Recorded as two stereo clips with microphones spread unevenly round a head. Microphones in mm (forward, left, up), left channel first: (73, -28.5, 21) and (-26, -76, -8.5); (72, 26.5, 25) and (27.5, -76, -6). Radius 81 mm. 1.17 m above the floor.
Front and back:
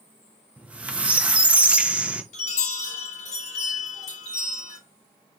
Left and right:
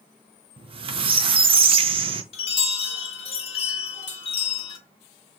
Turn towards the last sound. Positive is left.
turn(degrees=40)